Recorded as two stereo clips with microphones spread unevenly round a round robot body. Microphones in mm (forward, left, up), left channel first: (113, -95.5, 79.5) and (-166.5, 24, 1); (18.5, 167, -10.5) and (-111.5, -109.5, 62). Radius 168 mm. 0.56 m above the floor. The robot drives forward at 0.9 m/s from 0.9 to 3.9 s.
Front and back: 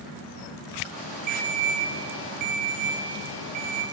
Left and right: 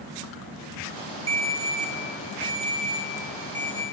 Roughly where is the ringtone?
Behind.